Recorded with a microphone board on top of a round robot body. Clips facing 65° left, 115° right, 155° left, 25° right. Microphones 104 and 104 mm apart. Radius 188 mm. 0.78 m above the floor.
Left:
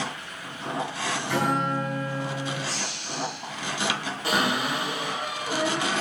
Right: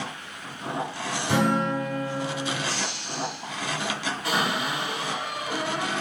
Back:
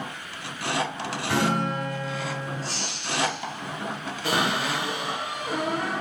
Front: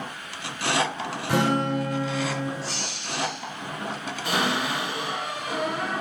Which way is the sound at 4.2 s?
130° left.